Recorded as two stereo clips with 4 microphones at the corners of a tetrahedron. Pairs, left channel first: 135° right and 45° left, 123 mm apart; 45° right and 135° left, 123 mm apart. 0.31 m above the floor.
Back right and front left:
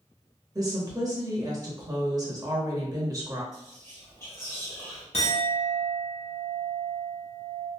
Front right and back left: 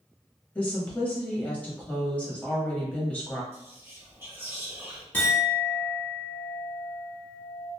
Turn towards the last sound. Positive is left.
turn(degrees=-120)